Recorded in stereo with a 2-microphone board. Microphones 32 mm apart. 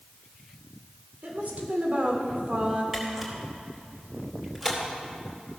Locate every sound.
1.2 s a woman speaking: 60° right (ahead or behind), 2 m; by 2.8 s 40° right (ahead or behind), 2.0 m
2.9 s a camera shutter: 10° right (ahead or behind), 3 m